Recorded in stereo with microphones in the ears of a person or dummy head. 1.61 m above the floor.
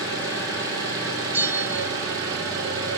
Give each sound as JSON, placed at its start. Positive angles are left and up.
{"t": 0.0, "sound": "an engine running", "side_deg": -25, "distance_m": 2.5}
{"t": 1.3, "sound": "a bell", "side_deg": -5, "distance_m": 0.5}